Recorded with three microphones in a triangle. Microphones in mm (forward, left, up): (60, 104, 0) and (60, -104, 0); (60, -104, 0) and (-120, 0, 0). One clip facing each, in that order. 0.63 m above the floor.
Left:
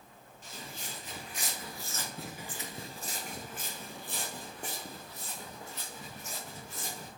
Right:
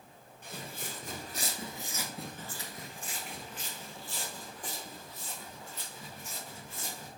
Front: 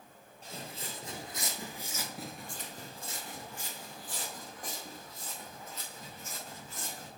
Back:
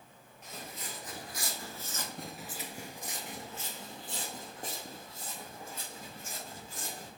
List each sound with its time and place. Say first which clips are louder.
0.4 s footsteps: right 3 dB, front 2 dB; 85° right, 1.0 m; by 7.1 s 90° left, 2.5 m